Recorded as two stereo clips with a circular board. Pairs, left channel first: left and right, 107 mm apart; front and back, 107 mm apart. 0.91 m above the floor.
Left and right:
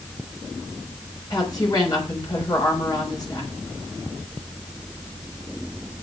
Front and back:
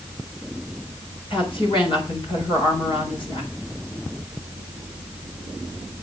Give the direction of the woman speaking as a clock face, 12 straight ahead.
11 o'clock.